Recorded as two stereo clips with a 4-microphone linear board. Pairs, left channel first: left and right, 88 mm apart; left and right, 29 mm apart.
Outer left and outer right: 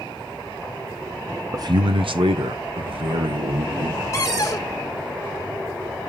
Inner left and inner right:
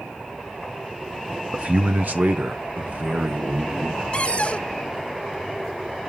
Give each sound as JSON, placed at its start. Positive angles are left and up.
{"t": 1.5, "sound": "a man speaking", "side_deg": -40, "distance_m": 0.6}
{"t": 4.1, "sound": "a cupboard door", "side_deg": 35, "distance_m": 1.7}